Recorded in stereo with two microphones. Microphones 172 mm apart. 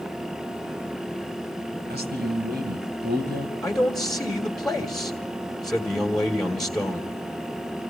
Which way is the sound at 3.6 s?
Centre (ahead or behind).